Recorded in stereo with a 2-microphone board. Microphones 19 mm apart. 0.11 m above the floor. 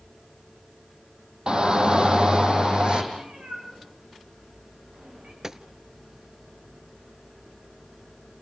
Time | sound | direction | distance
1.5 | a shout | 50° right (ahead or behind) | 5 m
3.1 | a cat meowing | 80° right | 8.5 m
5.4 | a gunshot | 30° right (ahead or behind) | 0.9 m